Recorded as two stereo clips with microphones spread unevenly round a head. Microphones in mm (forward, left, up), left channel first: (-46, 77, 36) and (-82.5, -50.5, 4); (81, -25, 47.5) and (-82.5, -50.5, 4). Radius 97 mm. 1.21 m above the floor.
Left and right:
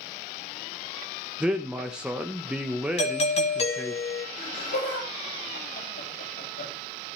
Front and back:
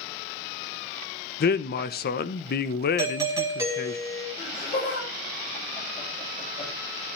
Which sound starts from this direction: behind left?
A doorbell, at 3.0 s.